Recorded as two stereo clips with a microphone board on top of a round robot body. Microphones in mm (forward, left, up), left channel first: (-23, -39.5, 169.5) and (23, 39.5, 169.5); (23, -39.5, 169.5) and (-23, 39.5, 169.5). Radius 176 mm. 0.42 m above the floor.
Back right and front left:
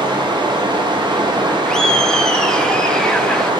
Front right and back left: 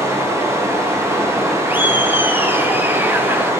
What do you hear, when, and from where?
0.0 s running water: 65° left, 1.4 m
1.7 s laughter: 165° left, 0.8 m